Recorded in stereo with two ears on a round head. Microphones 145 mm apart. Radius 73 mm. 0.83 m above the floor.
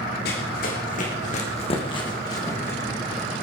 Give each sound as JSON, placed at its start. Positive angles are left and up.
{"t": 0.2, "sound": "running footsteps", "side_deg": 70, "distance_m": 3.5}